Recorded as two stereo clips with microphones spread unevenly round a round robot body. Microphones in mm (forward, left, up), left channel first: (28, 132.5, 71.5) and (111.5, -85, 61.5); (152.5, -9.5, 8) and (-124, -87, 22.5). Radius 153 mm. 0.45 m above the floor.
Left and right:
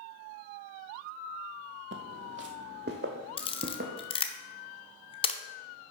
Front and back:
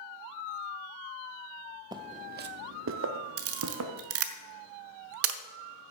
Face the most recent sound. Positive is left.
turn(degrees=175)